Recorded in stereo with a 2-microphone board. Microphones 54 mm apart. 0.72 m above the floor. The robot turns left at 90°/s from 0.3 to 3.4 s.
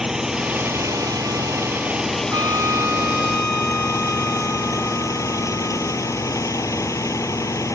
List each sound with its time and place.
0.0 s an engine running: 10° right; by 7.8 s 70° left
2.3 s a trumpet: 90° right; by 6.4 s 175° left